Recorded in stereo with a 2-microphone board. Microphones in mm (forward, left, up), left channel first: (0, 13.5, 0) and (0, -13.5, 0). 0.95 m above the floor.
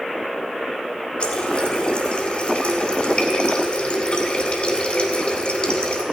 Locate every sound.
1.2 s a running tap: 40° left (ahead or behind), 1.7 m